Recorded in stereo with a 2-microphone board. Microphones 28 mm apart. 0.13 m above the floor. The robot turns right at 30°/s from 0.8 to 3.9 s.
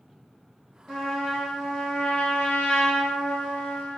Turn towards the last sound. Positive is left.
turn(degrees=105)